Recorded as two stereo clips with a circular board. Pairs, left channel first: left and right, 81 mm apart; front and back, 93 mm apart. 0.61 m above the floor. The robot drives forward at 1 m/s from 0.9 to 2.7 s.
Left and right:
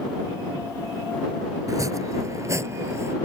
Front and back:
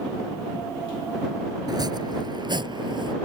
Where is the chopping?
135° right; by 3.1 s 145° right.